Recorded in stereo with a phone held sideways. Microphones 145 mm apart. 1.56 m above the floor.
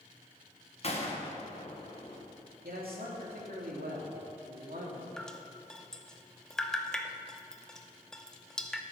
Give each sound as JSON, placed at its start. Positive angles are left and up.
{"t": 0.8, "sound": "a gunshot", "side_deg": 45, "distance_m": 1.3}
{"t": 2.6, "sound": "a man speaking", "side_deg": -85, "distance_m": 3.0}
{"t": 5.2, "sound": "dripping", "side_deg": 5, "distance_m": 0.7}